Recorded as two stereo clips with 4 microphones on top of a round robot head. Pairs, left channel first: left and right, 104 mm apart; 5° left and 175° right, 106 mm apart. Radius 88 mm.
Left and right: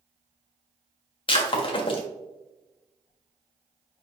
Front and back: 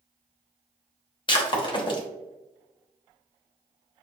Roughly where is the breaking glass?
Ahead left.